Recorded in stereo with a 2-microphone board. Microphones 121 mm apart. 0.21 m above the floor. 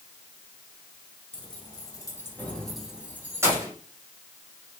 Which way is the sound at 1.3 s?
40° left (ahead or behind).